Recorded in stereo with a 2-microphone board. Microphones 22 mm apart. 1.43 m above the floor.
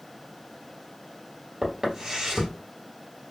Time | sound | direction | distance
1.6 | footsteps | 20° right (ahead or behind) | 1.7 m